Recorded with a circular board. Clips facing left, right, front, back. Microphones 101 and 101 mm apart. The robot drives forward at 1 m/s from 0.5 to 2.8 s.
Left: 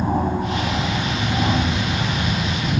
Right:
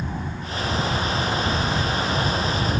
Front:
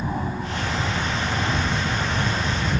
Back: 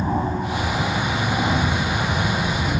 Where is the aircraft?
115° left; by 2.8 s 120° left.